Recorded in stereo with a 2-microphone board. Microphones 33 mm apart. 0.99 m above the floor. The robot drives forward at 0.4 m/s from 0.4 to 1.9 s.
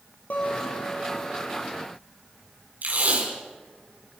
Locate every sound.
0.3 s a guitar: 55° left (ahead or behind), 4.5 m; by 1.4 s 50° left (ahead or behind), 4.5 m
2.8 s tape being pulled: 65° right (ahead or behind), 5.5 m